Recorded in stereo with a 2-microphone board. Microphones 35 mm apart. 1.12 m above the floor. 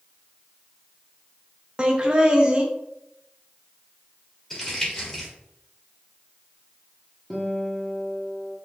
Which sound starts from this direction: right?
Laughter, at 1.8 s.